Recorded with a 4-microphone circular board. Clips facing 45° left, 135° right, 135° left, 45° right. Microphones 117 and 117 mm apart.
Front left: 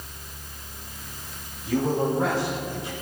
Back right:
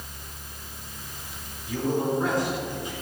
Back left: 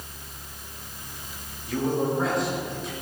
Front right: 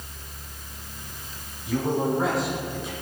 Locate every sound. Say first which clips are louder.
1.6 s a man speaking: front left 2 dB, front right 1 dB; 40° left, 6.5 m; by 2.9 s 45° left, 5 m